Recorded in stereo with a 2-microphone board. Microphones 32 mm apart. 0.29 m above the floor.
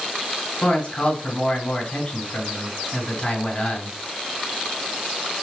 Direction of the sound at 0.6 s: 30° left (ahead or behind).